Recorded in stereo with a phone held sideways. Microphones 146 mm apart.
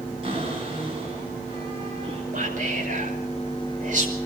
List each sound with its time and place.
0.2 s a cupboard door: 40° right (ahead or behind), 9.5 m
2.3 s whispering: 60° right (ahead or behind), 5.5 m